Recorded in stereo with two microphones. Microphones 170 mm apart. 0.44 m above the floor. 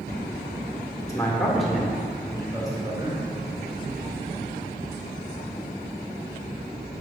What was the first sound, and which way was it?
A man speaking, 15° left (ahead or behind).